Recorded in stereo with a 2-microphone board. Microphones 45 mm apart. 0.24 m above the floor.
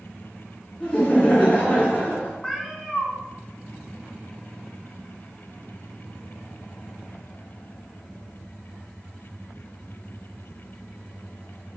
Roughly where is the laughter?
Left.